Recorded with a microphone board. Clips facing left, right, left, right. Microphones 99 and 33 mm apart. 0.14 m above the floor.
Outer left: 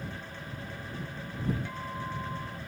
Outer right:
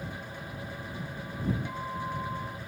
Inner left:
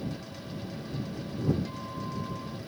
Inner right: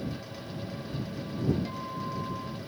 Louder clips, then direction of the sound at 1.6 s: Outer right 2 dB, inner right 2 dB; 15° right (ahead or behind).